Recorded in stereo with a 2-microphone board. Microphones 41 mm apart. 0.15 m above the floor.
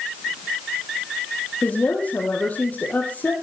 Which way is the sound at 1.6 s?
35° left (ahead or behind).